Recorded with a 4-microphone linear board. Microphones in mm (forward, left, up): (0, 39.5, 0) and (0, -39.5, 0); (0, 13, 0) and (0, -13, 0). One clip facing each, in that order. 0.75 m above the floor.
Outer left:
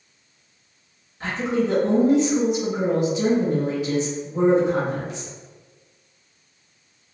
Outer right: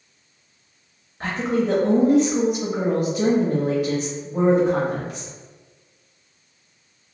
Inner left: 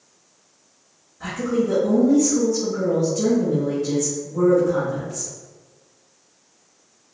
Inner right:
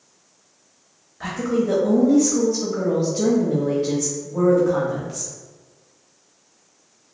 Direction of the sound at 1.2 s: 45° right (ahead or behind).